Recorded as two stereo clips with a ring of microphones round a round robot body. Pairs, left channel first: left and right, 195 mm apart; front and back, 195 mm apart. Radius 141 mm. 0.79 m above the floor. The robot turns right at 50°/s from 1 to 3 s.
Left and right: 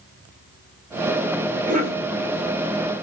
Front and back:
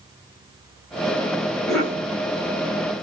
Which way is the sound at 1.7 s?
90° right.